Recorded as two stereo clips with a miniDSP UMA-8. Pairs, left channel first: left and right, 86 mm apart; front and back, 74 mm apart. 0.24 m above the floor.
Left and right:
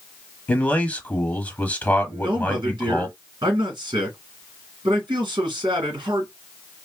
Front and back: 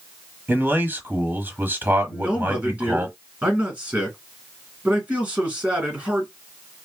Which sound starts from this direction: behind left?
A man speaking, at 0.5 s.